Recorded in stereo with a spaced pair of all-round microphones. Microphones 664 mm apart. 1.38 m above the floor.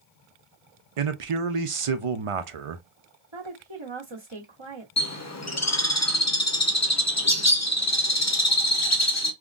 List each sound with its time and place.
1.0 s a man speaking: 50° right (ahead or behind), 0.6 m
3.3 s a woman speaking: 40° right (ahead or behind), 1.1 m
5.0 s a bird: 25° left (ahead or behind), 0.6 m